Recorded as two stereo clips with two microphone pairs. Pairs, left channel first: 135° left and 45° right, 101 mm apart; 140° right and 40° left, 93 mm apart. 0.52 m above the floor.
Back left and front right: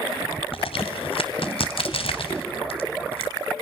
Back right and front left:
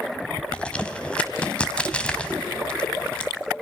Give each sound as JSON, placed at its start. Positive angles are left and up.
{"t": 0.5, "sound": "a crack", "azimuth_deg": 145, "distance_m": 1.9}